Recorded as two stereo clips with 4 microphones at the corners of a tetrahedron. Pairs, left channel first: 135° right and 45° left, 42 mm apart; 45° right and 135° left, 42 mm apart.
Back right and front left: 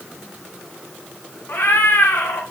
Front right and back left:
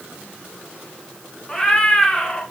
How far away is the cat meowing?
About 2 m.